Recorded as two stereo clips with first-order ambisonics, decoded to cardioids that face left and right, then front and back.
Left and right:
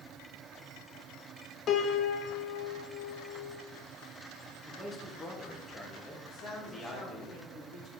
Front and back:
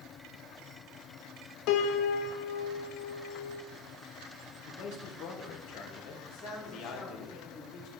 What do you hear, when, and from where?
1.7 s a piano: 30° left, 0.5 m
4.7 s a man speaking: 15° left, 1.3 m
6.2 s a man speaking: 50° left, 1.9 m